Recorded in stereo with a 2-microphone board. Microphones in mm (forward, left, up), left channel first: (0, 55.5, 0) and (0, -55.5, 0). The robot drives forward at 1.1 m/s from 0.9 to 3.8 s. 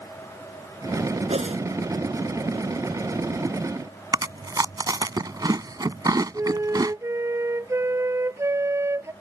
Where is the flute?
25° right (ahead or behind).